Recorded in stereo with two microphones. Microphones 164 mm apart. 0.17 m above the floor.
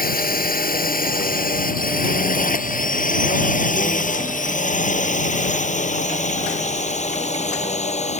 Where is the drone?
60° left (ahead or behind); by 8.2 s 45° left (ahead or behind).